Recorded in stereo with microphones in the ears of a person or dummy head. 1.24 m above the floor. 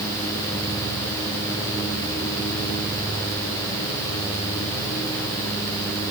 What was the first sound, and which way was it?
Only background noise.